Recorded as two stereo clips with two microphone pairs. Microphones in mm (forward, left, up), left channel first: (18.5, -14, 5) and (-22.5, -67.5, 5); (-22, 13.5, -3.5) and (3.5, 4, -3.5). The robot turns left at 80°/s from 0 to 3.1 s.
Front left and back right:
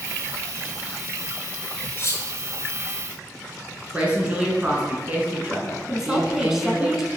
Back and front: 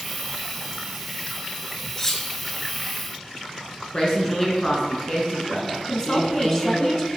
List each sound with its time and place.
2.0 s cutlery clinking: 95° left, 1.1 m; by 2.2 s 75° left, 1.1 m
3.9 s a woman speaking: straight behind, 1.8 m
5.9 s a woman speaking: 170° left, 1.0 m